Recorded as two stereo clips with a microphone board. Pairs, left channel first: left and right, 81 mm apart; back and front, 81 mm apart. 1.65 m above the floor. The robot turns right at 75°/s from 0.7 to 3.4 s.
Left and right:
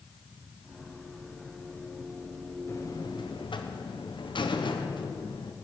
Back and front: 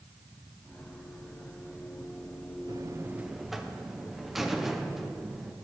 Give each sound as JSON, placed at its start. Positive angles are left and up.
{"t": 2.7, "sound": "a buzzer", "azimuth_deg": 35, "distance_m": 0.9}